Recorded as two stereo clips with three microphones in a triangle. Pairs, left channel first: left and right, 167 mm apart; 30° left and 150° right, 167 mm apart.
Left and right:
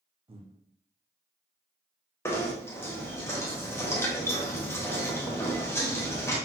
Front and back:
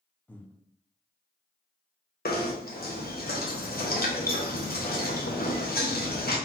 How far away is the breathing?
About 0.5 m.